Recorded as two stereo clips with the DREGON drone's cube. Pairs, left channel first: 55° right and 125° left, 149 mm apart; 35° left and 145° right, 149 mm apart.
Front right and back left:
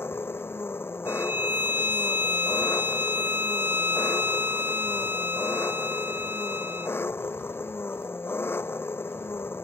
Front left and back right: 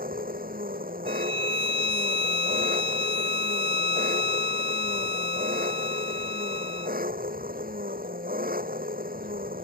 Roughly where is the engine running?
Behind right.